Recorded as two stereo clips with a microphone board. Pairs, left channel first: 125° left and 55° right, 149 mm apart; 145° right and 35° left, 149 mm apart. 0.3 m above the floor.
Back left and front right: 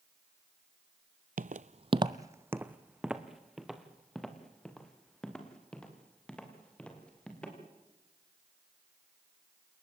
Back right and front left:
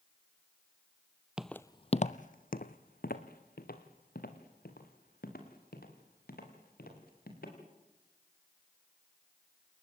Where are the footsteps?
50° right, 0.6 m; by 7.6 s 155° right, 6 m.